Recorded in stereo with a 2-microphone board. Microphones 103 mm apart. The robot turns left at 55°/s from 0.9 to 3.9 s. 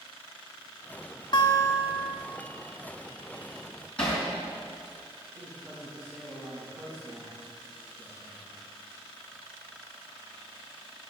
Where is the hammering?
10° left (ahead or behind), 5 m.